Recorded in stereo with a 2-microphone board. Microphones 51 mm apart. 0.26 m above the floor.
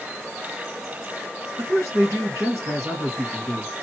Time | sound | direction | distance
1.6 | a woman speaking | 55° right (ahead or behind) | 2 m